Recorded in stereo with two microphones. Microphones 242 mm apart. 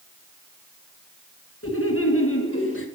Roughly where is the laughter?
Left.